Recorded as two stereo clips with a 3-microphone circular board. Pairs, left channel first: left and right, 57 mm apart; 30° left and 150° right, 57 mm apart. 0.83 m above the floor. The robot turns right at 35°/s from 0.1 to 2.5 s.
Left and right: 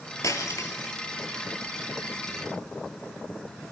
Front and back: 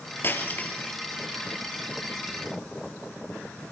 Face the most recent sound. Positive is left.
turn(degrees=155)